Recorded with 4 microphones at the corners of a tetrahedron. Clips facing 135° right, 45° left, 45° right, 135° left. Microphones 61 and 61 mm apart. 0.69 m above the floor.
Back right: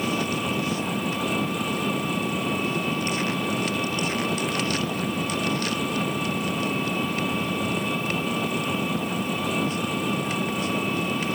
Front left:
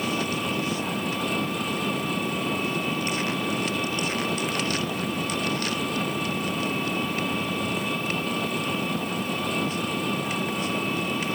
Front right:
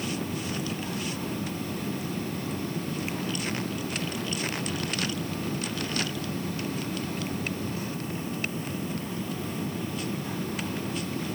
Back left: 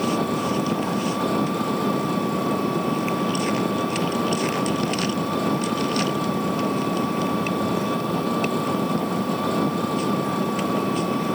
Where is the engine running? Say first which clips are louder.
Back right 1 dB, back left 10 dB; 140° left.